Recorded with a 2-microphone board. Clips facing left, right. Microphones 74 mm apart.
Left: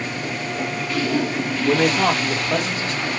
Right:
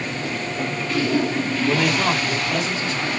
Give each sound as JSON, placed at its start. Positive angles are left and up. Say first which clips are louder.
{"t": 1.6, "sound": "a man speaking", "louder": "left 4 dB", "side_deg": 55, "distance_m": 2.0}